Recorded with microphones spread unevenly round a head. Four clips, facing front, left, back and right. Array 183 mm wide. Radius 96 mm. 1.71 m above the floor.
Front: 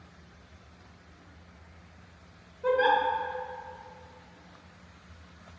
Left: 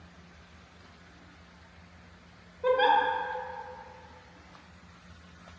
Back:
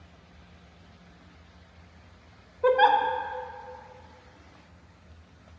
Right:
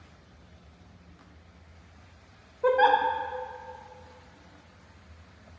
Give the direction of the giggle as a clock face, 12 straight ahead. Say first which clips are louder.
Right 2 dB, back 4 dB; 5 o'clock.